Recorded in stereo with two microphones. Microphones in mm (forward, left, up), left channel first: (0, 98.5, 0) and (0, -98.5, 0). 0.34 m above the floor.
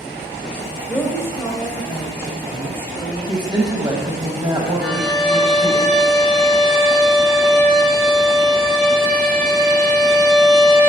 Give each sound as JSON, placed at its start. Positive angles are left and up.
{"t": 0.9, "sound": "a woman speaking", "side_deg": 10, "distance_m": 1.8}
{"t": 3.3, "sound": "a woman speaking", "side_deg": -20, "distance_m": 1.9}
{"t": 4.8, "sound": "a violin", "side_deg": -5, "distance_m": 1.4}